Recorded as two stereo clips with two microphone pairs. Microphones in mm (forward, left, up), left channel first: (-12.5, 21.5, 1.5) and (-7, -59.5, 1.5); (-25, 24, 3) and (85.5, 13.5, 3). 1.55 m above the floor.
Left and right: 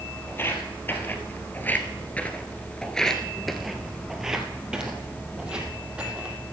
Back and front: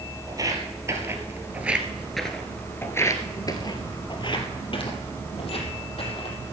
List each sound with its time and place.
0.3 s footsteps: 40° left, 2.5 m; by 6.4 s 160° right, 3.5 m